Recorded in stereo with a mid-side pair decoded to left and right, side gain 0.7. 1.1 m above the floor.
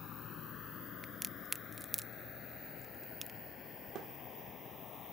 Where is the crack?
10° right.